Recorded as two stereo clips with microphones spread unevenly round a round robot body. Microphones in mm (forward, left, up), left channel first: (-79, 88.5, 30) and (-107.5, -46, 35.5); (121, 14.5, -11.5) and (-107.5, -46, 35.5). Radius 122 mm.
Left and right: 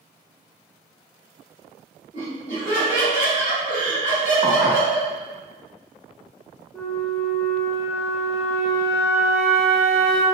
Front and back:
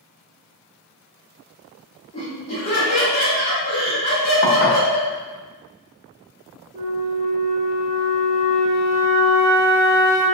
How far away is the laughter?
About 1.9 m.